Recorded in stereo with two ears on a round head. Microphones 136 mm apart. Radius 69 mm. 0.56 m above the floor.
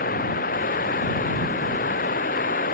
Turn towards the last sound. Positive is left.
turn(degrees=60)  # may be behind; listen again after turning